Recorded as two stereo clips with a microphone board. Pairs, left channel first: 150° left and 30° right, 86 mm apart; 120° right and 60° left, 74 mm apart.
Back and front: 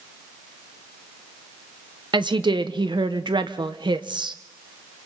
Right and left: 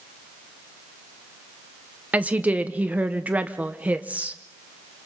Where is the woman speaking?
10° right, 1.0 m.